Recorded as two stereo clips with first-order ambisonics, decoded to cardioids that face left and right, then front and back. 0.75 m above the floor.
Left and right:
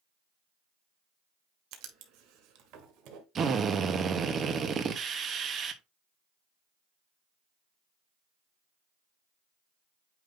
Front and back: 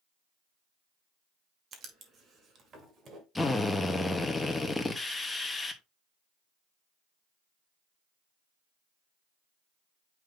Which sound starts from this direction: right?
A drill, at 3.4 s.